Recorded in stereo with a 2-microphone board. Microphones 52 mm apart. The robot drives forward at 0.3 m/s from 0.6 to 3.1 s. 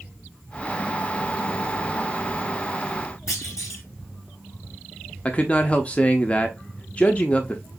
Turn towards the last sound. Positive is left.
turn(degrees=25)  # may be behind; listen again after turning